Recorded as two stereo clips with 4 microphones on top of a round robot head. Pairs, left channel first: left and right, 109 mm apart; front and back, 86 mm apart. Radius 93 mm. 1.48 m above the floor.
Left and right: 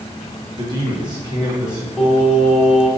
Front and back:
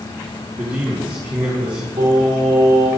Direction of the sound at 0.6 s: 140° right.